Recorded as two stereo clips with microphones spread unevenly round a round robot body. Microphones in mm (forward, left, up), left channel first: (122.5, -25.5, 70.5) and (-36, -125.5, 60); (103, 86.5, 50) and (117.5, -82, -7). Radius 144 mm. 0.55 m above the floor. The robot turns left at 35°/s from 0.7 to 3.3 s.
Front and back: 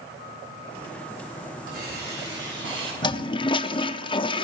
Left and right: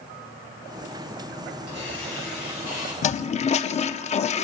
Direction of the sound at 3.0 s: 65° left.